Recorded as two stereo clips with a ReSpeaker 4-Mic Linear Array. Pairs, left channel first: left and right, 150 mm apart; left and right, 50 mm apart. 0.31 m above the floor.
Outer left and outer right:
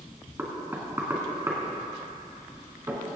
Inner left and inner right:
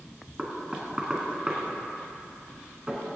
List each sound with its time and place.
0.4 s knocking: 15° right (ahead or behind), 3 m